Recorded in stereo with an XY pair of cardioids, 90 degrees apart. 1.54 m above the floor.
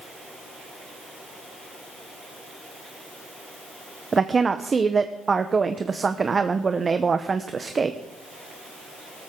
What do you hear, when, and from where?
4.1 s a woman speaking: 35° right, 0.8 m